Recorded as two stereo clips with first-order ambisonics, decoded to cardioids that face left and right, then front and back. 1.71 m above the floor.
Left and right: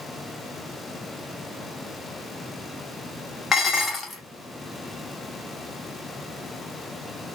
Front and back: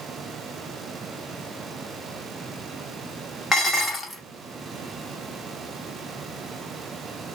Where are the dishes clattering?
50° left, 0.8 m.